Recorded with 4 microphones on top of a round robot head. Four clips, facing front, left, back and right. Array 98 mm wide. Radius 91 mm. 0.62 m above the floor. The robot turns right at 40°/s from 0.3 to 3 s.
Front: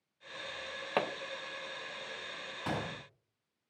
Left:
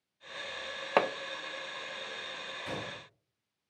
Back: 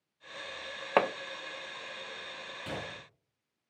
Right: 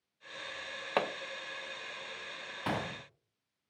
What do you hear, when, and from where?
1.0 s hammering: 145° left, 0.8 m; by 1.1 s 150° left, 0.8 m
2.7 s a gunshot: 65° right, 1.4 m; by 3.0 s 50° right, 1.4 m